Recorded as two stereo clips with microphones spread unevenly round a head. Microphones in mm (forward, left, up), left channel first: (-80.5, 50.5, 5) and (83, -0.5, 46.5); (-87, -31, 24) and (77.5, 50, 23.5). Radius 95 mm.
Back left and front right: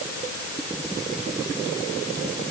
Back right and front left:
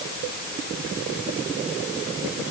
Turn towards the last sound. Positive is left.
No sound to turn to.